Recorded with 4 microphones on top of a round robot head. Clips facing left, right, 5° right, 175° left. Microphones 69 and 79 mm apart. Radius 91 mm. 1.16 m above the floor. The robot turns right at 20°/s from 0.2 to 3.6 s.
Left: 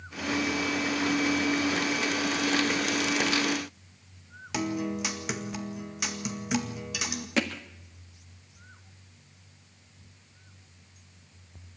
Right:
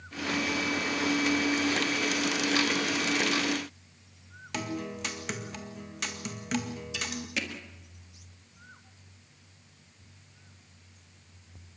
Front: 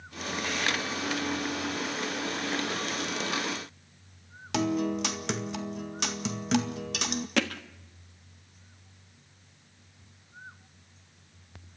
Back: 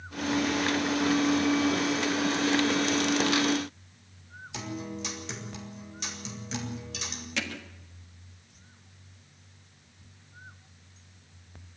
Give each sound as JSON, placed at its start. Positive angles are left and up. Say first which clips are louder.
{"t": 4.5, "sound": "a guitar", "louder": "left 5 dB, front 10 dB", "azimuth_deg": 10, "distance_m": 2.0}
{"t": 7.4, "sound": "hammering", "louder": "left 8 dB, front 6 dB", "azimuth_deg": 35, "distance_m": 1.5}